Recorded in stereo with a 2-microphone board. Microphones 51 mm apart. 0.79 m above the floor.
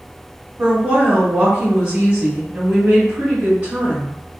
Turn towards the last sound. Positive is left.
turn(degrees=-45)  # may be behind; listen again after turning